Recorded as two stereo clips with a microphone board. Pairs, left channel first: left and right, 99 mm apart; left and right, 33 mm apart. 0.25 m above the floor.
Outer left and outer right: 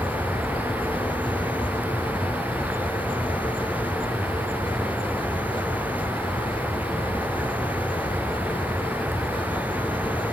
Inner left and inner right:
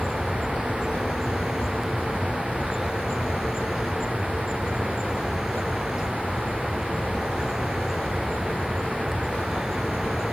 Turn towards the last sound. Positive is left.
turn(degrees=-15)  # may be behind; listen again after turning